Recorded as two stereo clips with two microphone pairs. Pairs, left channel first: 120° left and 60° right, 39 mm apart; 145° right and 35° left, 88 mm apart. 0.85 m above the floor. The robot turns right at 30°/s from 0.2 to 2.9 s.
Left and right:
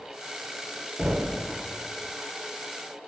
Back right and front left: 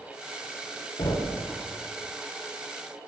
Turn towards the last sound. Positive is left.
turn(degrees=-55)